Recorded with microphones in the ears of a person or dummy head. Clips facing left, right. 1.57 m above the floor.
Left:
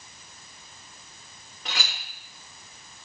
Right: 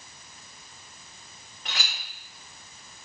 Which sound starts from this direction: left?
A clink, at 1.6 s.